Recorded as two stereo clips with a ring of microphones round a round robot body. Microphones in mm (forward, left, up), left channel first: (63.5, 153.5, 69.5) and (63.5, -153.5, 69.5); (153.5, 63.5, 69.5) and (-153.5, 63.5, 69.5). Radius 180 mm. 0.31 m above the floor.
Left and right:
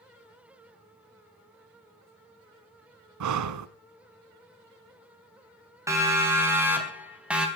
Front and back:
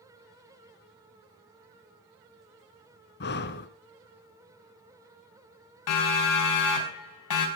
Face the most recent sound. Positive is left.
turn(degrees=-5)